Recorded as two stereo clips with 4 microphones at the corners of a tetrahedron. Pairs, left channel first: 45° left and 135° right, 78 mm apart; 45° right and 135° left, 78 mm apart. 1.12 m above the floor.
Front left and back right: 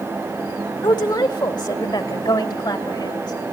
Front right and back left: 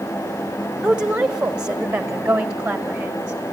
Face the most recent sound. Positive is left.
turn(degrees=60)